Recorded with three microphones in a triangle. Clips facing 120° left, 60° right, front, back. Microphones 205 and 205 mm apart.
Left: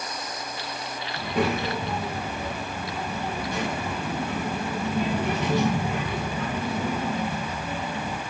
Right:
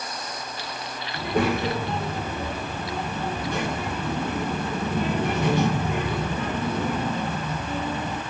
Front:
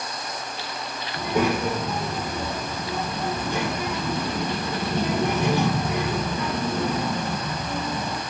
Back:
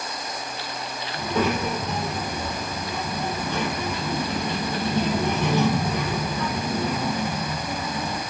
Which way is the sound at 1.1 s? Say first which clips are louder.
Right 2 dB, front 1 dB; 75° right.